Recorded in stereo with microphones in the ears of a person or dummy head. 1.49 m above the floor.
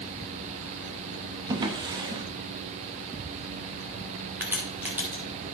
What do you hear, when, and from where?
1.5 s a drawer: 25° right (ahead or behind), 1.1 m
4.4 s a crack: 10° right (ahead or behind), 2.5 m